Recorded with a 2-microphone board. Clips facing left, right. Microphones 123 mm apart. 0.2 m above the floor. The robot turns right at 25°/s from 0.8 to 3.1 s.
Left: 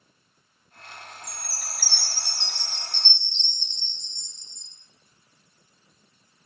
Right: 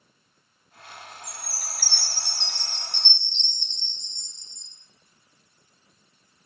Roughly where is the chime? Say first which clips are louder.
Even; right.